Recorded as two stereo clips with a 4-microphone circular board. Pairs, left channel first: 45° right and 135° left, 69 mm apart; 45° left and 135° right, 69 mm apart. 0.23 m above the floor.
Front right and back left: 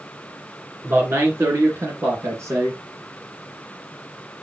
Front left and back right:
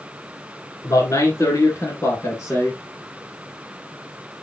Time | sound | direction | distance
0.8 | a man speaking | 85° left | 3 m